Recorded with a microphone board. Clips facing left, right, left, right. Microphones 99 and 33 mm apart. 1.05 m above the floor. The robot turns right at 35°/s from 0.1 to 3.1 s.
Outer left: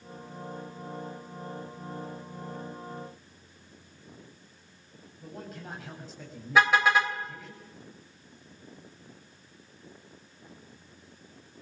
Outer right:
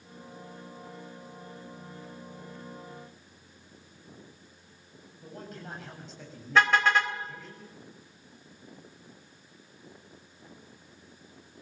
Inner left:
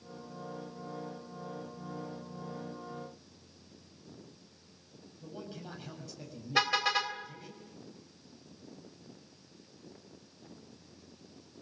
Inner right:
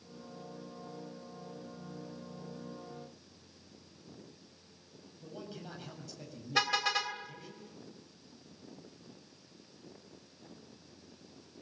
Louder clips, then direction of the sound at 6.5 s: Outer left 1 dB, inner left 2 dB; 10° left (ahead or behind).